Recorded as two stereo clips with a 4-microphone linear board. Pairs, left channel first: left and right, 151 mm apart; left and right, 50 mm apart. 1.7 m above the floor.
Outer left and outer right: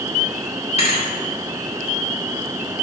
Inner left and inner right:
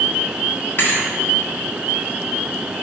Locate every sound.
0.8 s a thud: 45° left (ahead or behind), 1.7 m